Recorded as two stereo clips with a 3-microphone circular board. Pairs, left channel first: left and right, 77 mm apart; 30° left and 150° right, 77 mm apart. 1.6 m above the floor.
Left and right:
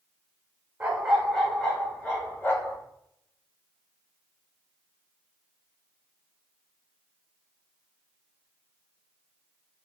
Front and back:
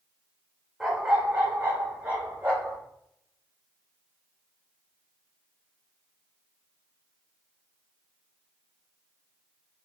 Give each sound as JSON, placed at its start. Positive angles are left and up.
{"t": 0.8, "sound": "a dog barking", "azimuth_deg": -70, "distance_m": 1.0}